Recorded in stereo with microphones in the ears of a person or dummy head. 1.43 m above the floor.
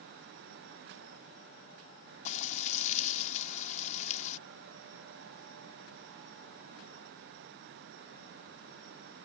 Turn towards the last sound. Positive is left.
turn(degrees=45)  # may be behind; listen again after turning